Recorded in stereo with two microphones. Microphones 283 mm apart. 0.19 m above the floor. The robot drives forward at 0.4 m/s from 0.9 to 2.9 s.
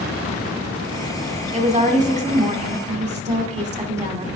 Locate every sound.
1.5 s a woman speaking: 25° right (ahead or behind), 1.4 m